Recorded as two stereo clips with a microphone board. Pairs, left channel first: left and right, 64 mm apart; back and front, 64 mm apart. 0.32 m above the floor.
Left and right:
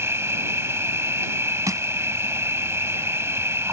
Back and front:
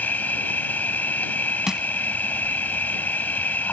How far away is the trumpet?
I don't hear a trumpet.